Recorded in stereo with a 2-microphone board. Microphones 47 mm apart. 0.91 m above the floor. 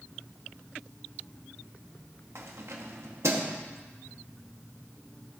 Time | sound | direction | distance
2.4 | keys jangling | 70° right (ahead or behind) | 1.0 m